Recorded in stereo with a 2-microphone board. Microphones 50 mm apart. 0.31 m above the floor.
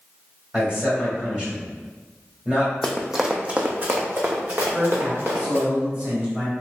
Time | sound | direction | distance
0.5 | a man speaking | 25° right (ahead or behind) | 1.5 m
2.8 | running footsteps | 10° left (ahead or behind) | 0.5 m
4.6 | a man speaking | 20° right (ahead or behind) | 1.3 m